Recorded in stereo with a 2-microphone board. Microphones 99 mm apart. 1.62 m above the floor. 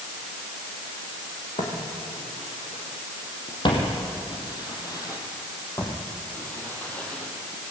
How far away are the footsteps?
About 5 m.